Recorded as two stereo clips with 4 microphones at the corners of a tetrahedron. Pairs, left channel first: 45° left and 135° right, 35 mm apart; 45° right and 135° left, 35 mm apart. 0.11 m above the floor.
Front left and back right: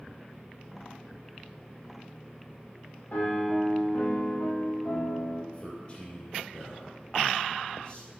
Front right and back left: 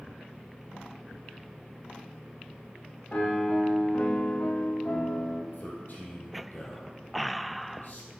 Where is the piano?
10° left, 1.7 m.